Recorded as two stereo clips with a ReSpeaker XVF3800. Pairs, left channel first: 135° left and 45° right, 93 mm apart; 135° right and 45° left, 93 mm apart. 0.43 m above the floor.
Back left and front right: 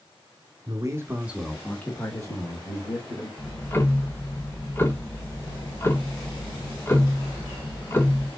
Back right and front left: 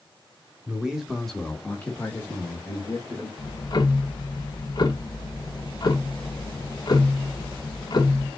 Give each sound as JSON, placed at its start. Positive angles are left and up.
{"t": 0.7, "sound": "a man speaking", "azimuth_deg": -30, "distance_m": 1.2}
{"t": 3.4, "sound": "ticking", "azimuth_deg": -165, "distance_m": 0.9}